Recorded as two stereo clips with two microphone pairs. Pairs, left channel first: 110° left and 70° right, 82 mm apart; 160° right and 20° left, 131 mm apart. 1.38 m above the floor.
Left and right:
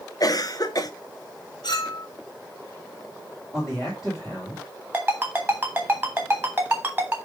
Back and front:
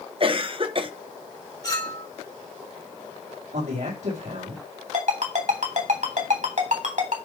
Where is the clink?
140° left, 2.0 m.